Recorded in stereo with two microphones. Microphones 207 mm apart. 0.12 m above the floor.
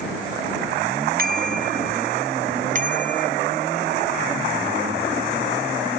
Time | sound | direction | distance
1.2 | a bicycle bell | 45° right (ahead or behind) | ?